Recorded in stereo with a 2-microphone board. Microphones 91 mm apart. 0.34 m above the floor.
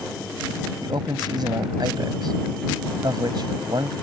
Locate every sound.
0.8 s a man speaking: 55° right (ahead or behind)